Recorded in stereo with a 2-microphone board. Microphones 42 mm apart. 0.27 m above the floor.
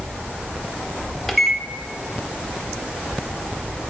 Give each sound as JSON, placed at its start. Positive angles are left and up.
{"t": 1.3, "sound": "a microwave", "side_deg": 5, "distance_m": 0.7}